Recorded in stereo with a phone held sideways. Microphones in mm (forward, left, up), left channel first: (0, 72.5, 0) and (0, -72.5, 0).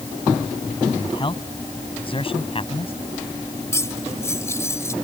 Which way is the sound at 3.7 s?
20° left (ahead or behind).